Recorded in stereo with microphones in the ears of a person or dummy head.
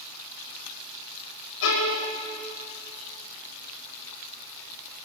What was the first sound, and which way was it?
A violin, 75° left (ahead or behind).